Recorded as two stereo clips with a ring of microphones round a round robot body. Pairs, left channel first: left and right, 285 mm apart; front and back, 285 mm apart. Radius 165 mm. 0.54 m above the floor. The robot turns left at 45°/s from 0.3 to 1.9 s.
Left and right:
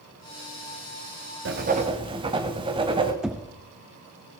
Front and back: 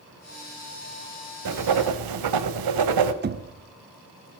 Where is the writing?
145° right, 1.0 m; by 3.1 s 165° right, 1.0 m.